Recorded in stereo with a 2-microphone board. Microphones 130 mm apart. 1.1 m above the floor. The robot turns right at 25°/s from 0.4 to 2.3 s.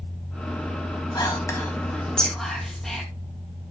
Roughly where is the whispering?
Left.